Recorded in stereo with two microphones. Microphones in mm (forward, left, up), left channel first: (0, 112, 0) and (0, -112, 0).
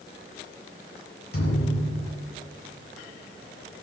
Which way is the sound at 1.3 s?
85° left.